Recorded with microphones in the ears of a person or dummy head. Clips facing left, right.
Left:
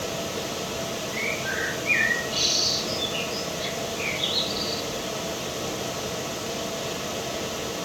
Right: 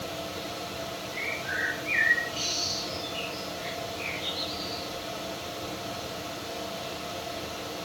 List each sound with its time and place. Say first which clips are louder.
0.0 s a fan: left 6 dB; 65° left (ahead or behind), 2.5 m
1.1 s a bird: left 6 dB; 45° left (ahead or behind), 7 m